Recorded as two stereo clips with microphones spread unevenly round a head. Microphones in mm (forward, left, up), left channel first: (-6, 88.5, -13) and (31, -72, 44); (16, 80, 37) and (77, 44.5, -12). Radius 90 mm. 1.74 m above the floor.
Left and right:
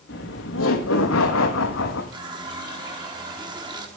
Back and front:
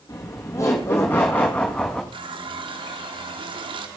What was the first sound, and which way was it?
Laughter, 135° left.